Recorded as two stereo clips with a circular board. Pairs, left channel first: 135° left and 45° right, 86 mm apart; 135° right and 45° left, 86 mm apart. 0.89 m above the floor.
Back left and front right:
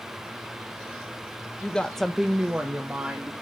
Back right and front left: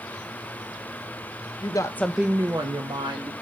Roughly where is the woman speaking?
Behind right.